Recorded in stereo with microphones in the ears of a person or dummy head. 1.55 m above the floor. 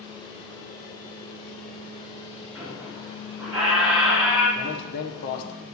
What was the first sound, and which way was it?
A squeak, 5° right (ahead or behind).